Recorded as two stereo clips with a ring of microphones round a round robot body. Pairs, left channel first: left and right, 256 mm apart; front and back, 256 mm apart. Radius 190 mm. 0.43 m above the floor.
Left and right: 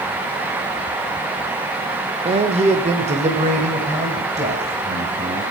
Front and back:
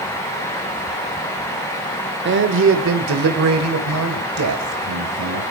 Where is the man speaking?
150° right, 1.1 m; by 5.4 s 160° right, 3 m.